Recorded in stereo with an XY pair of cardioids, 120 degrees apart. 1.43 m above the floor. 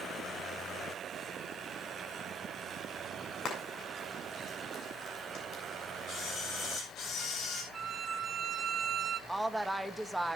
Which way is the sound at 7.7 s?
35° right.